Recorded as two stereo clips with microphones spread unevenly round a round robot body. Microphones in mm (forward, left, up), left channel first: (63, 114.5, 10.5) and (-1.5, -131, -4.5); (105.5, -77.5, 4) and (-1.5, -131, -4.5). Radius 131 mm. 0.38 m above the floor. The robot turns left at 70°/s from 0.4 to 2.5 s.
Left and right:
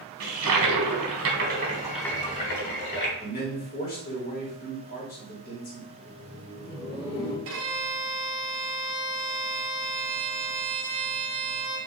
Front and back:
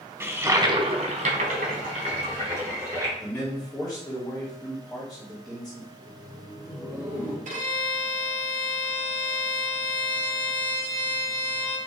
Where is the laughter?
140° left, 1.3 m.